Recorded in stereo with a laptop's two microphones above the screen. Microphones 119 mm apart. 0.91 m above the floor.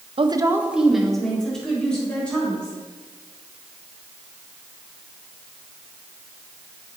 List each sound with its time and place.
0.2 s a woman speaking: 50° right (ahead or behind), 0.5 m; by 2.8 s 10° left (ahead or behind), 4 m